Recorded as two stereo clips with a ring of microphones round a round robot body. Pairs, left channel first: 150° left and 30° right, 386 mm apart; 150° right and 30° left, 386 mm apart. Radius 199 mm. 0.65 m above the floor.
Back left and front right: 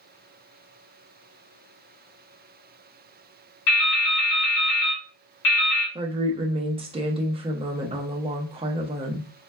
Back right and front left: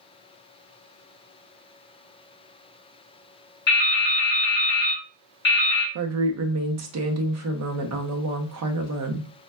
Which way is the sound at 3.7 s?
145° left.